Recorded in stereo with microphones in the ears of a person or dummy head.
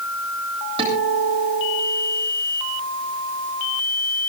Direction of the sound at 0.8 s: 25° right (ahead or behind).